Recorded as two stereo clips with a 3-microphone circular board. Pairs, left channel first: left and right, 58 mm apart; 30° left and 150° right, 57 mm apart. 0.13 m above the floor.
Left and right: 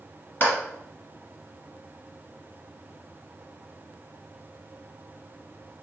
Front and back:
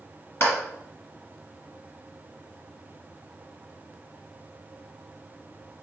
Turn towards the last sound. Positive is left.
turn(degrees=55)